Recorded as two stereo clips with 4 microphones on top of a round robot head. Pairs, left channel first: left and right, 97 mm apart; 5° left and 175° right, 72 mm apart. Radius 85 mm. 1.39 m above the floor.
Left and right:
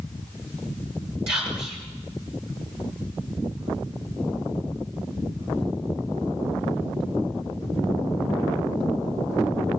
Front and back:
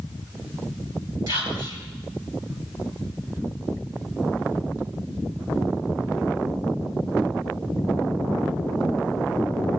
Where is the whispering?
125° right, 5.5 m.